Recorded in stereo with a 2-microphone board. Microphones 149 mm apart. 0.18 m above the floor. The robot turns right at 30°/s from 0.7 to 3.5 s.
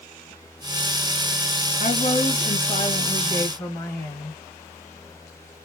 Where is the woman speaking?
100° left, 2.5 m; by 4.3 s 150° left, 2.5 m.